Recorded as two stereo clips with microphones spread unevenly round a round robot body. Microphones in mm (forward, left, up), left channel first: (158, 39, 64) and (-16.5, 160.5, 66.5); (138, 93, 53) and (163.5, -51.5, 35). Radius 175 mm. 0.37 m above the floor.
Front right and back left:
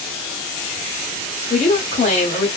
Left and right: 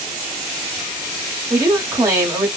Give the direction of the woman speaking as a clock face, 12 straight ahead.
2 o'clock.